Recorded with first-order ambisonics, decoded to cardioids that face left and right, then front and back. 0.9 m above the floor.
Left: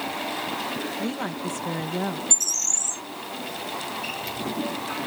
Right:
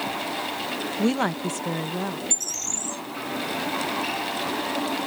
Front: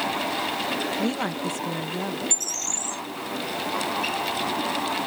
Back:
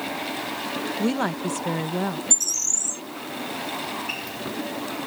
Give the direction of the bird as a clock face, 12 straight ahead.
8 o'clock.